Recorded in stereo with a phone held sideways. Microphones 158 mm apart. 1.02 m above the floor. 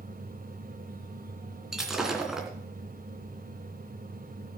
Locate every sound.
0.0 s a fan: 65° right (ahead or behind), 1.7 m
1.7 s breaking glass: 5° right (ahead or behind), 2.5 m